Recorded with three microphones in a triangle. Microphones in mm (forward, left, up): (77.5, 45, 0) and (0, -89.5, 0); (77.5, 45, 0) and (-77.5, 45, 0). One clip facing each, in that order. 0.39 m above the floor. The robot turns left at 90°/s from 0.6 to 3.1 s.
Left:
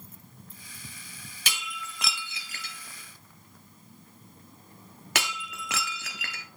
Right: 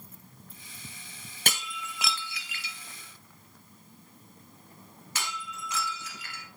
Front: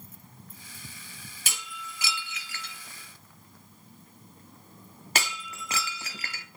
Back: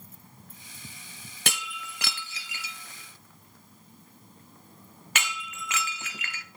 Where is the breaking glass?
155° right, 1.2 m; by 6.5 s 55° left, 1.2 m.